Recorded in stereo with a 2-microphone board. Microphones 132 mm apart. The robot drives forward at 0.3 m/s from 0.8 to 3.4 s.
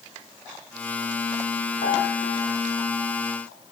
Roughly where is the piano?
Left.